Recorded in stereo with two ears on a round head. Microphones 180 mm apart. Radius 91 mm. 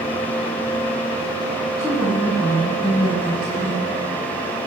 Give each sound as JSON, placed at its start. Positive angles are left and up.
{"t": 1.8, "sound": "a woman speaking", "side_deg": 10, "distance_m": 5.0}